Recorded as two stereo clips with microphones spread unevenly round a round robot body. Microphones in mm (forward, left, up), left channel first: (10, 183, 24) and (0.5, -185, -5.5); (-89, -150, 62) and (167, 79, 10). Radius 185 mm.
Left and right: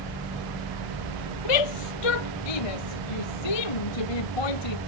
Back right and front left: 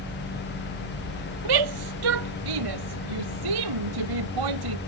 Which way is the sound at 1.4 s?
70° left.